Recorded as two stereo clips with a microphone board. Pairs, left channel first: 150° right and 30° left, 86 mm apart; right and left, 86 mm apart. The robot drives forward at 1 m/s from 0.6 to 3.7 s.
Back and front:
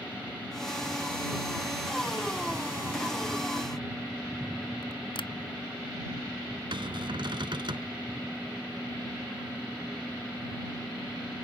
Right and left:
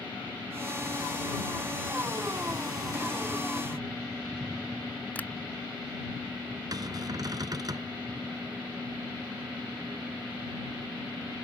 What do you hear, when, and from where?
5.2 s tapping: 165° right
6.7 s a cupboard door: 50° left